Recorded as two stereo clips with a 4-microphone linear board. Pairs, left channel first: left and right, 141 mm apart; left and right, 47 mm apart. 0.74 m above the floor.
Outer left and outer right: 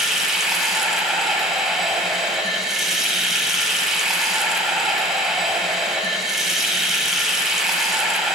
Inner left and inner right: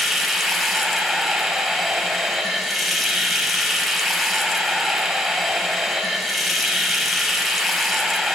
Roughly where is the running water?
Centre.